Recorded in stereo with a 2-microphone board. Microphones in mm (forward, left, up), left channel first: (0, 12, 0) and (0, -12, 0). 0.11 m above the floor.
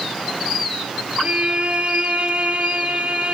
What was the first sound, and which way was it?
A violin, 55° right (ahead or behind).